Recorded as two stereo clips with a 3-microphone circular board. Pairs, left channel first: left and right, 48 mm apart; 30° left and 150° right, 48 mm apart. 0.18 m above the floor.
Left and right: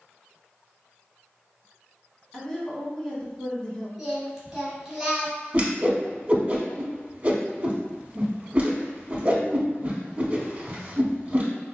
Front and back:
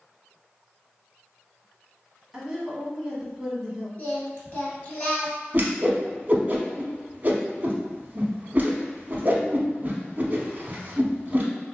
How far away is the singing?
About 1.4 m.